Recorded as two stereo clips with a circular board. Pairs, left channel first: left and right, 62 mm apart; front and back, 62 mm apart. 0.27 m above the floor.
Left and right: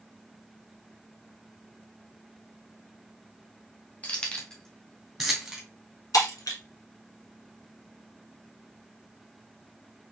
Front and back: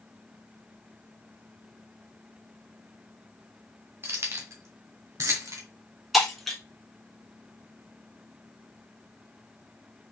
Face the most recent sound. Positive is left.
turn(degrees=85)